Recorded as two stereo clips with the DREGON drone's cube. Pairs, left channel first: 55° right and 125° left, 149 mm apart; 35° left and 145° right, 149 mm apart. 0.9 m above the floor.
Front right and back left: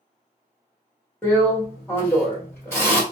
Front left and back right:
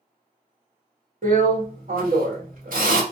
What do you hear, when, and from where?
1.2 s a drill: 130° right, 1.7 m